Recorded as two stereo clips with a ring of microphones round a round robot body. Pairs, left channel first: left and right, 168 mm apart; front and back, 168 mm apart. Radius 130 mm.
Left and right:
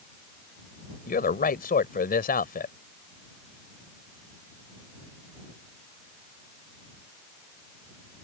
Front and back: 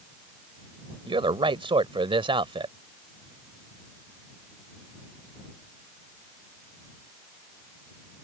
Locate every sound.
1.1 s a man speaking: 120° left